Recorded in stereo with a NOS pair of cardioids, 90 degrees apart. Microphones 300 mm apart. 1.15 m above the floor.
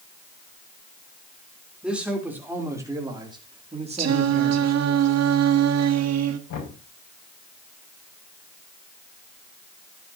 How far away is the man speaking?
About 4 m.